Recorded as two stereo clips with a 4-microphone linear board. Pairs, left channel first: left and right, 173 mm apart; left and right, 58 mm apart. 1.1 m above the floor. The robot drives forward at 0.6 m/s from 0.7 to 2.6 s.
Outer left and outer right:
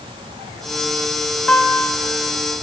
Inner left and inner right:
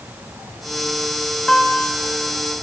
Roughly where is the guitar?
Centre.